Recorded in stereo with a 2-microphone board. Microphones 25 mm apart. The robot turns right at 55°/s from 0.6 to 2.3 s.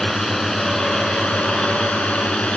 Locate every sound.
0.0 s a drone: 20° left (ahead or behind); by 2.6 s 50° left (ahead or behind)